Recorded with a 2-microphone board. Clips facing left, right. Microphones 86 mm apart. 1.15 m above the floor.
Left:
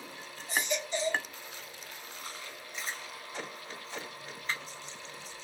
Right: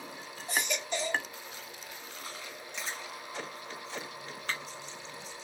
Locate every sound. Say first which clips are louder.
0.5 s a baby crying: left 1 dB; 80° right, 2 m
2.7 s chewing: even; 85° right, 1.4 m